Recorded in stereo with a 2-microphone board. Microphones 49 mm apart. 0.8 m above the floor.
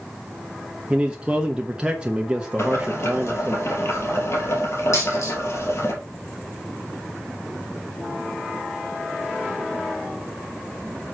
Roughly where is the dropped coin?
Left.